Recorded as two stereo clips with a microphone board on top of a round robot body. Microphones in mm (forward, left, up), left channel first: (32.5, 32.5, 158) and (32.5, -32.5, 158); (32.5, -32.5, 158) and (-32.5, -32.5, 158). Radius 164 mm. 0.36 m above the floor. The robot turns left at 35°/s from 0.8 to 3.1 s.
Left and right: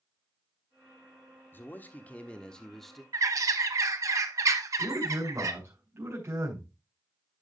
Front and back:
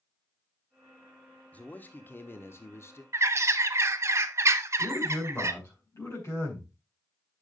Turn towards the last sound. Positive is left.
turn(degrees=-35)